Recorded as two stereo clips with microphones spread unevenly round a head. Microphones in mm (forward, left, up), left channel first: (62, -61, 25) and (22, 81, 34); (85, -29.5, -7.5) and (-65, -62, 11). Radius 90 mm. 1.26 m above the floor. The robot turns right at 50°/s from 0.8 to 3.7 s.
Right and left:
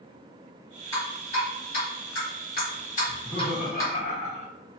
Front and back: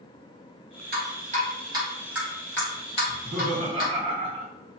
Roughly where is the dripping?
Behind right.